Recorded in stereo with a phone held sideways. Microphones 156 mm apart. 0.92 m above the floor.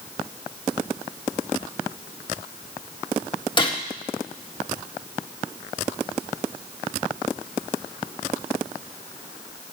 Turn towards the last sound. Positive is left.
turn(degrees=30)  # may be behind; listen again after turning